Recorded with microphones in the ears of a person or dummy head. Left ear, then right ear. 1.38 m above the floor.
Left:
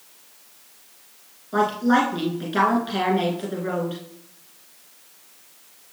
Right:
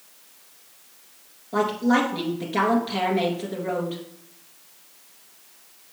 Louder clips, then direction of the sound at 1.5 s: Left 2 dB; 15° left (ahead or behind).